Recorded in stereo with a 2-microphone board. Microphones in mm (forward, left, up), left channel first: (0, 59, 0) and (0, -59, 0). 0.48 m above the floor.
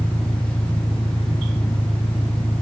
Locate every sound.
0.0 s an engine running: 45° left (ahead or behind)